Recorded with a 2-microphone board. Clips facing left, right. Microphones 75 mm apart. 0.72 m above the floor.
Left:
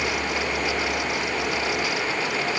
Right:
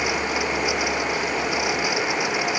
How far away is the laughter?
I don't hear laughter.